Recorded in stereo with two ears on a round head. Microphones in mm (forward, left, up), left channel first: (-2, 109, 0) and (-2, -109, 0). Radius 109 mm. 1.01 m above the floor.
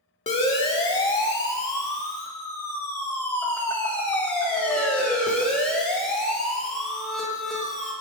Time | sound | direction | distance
0.3 | a siren | 25° left (ahead or behind) | 2.5 m